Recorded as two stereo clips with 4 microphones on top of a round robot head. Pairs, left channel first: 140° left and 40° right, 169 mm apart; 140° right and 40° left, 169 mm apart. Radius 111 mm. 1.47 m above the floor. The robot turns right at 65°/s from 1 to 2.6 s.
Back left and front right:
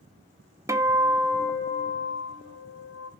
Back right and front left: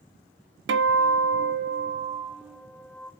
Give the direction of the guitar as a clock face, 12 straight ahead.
11 o'clock.